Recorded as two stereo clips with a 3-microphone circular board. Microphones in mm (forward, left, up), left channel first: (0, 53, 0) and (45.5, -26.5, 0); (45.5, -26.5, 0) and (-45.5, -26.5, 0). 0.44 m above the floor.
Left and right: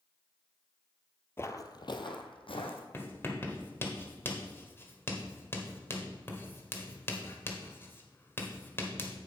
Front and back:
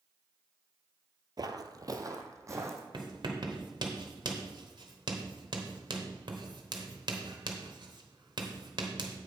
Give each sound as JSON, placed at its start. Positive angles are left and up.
{"t": 1.4, "sound": "footsteps", "azimuth_deg": 175, "distance_m": 0.5}
{"t": 2.9, "sound": "writing", "azimuth_deg": 180, "distance_m": 1.3}